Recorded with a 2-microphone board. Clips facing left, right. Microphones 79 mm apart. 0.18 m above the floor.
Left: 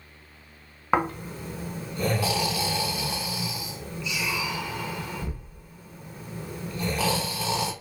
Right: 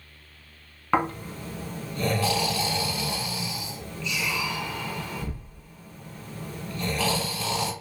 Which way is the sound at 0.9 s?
15° left (ahead or behind).